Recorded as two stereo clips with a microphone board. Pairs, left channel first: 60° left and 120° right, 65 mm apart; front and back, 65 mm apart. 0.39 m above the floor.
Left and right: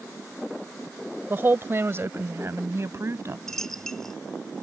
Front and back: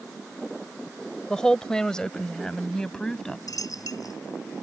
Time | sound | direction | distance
1.3 | a woman speaking | 75° right | ?
3.5 | a dropped coin | 25° right | ?